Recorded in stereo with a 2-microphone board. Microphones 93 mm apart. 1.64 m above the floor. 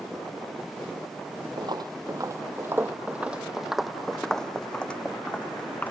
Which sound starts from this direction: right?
Footsteps, at 1.6 s.